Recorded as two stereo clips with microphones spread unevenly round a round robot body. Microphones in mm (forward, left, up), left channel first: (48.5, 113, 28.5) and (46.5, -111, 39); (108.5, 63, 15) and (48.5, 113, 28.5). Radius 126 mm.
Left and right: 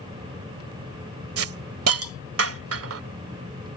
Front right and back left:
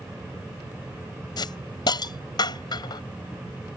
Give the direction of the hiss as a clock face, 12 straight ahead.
3 o'clock.